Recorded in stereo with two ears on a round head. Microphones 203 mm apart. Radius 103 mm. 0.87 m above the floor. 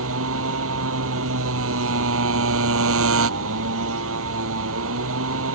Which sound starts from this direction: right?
A motorcycle, at 0.0 s.